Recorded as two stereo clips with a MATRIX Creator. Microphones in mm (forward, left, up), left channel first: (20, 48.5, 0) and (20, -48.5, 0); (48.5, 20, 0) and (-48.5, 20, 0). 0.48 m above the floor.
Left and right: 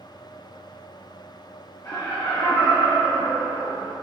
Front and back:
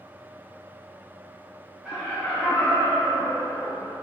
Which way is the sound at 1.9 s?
105° left.